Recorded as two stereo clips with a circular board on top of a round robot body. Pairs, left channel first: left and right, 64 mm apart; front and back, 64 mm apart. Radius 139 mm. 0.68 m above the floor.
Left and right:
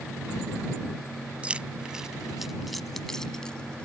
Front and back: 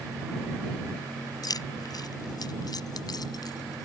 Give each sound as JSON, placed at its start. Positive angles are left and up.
{"t": 1.4, "sound": "keys jangling", "azimuth_deg": -15}